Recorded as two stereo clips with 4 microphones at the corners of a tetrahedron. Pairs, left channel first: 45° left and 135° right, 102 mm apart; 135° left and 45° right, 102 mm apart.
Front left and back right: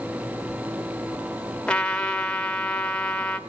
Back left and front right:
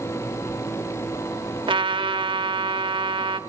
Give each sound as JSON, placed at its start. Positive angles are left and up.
{"t": 1.7, "sound": "a trumpet", "azimuth_deg": -35, "distance_m": 1.1}